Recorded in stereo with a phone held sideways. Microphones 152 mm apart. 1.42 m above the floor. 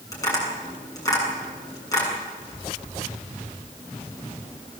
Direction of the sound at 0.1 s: 20° left (ahead or behind).